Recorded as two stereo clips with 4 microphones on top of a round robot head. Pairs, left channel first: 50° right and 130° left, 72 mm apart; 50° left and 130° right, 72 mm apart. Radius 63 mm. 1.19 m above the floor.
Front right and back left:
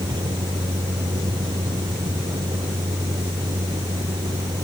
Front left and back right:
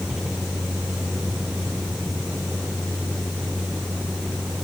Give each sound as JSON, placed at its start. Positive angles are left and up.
{"t": 0.0, "sound": "a vehicle", "azimuth_deg": 150}